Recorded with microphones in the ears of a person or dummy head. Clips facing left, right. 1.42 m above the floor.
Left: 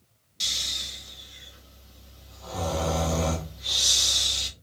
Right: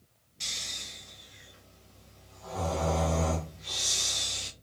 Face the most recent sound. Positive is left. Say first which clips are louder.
# left 3 dB
turn(degrees=50)  # may be behind; listen again after turning